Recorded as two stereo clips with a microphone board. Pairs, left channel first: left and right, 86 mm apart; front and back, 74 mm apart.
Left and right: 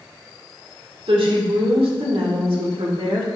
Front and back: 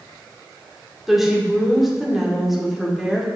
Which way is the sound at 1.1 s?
90° right.